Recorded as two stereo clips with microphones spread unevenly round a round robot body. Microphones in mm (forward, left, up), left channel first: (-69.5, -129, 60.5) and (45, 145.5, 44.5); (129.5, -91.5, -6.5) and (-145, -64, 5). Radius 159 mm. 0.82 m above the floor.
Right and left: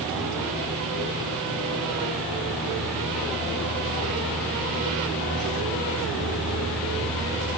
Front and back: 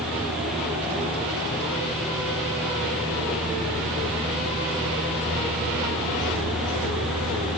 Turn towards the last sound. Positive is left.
No sound to turn to.